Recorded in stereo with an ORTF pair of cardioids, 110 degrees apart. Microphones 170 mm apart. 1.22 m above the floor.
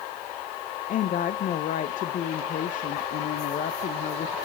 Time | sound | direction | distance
0.9 | a woman speaking | 50° left | 0.7 m